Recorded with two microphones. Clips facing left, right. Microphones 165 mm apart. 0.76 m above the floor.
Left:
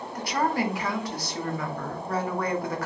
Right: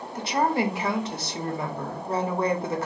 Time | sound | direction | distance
0.1 | a woman speaking | 25° right (ahead or behind) | 1.0 m